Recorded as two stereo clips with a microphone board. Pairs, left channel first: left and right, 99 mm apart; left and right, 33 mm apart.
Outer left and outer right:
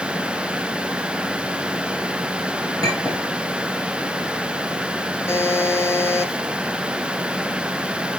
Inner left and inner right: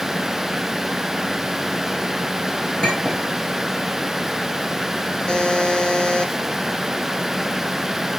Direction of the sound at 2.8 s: 35° left (ahead or behind).